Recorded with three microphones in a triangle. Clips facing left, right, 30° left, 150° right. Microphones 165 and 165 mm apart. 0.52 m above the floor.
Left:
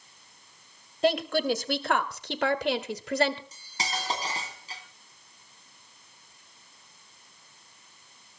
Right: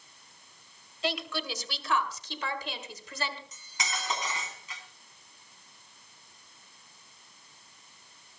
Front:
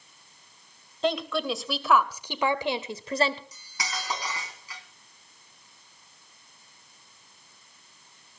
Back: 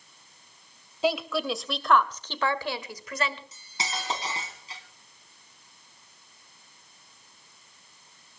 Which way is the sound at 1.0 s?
125° left.